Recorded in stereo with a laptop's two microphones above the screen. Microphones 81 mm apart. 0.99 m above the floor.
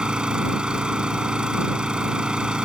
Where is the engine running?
10° right (ahead or behind).